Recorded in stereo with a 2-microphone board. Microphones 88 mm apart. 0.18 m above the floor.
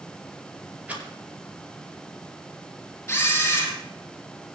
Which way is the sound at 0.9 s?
20° right (ahead or behind).